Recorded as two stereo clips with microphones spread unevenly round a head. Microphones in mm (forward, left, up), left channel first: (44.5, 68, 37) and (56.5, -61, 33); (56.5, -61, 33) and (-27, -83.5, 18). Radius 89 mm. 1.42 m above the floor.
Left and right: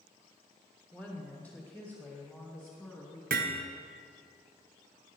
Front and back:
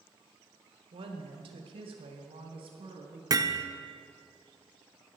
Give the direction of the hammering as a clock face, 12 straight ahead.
4 o'clock.